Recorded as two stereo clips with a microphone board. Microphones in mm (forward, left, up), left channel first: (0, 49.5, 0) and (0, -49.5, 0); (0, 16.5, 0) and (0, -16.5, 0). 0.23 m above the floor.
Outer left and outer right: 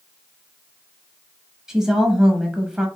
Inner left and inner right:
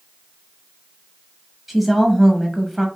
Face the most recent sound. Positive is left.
turn(degrees=-5)  # may be behind; listen again after turning